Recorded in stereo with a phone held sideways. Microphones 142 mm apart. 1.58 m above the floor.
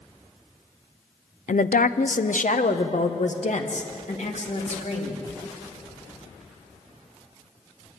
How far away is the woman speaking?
About 0.6 m.